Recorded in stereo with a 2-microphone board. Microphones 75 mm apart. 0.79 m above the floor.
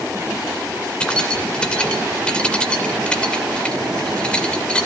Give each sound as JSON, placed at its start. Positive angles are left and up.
{"t": 1.0, "sound": "keys jangling", "side_deg": 15, "distance_m": 2.5}